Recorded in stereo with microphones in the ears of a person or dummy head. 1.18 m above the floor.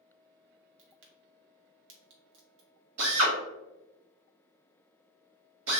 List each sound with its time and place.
0.8 s a crack: 60° right (ahead or behind), 0.9 m
3.0 s a drill: 70° right (ahead or behind), 1.4 m